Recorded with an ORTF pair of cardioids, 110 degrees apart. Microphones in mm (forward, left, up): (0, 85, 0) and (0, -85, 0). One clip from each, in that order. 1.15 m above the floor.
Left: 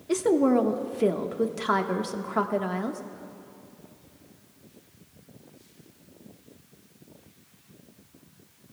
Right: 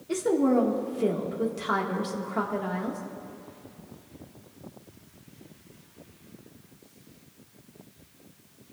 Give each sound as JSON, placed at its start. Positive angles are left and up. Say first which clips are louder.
{"t": 0.1, "sound": "a woman speaking", "louder": "left 2 dB", "azimuth_deg": 30, "distance_m": 1.3}